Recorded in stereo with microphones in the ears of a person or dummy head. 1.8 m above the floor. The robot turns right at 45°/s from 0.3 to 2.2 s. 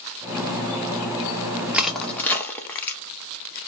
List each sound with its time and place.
1.7 s crushing: 5° right (ahead or behind), 0.6 m; by 3.0 s 15° left (ahead or behind), 0.6 m